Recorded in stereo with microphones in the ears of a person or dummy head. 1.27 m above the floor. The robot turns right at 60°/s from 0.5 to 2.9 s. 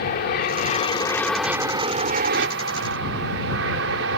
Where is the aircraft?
130° left; by 4.2 s 90° right.